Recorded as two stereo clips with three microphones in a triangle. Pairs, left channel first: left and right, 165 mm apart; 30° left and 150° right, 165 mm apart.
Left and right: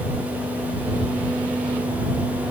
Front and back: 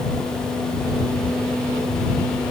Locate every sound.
Only background noise.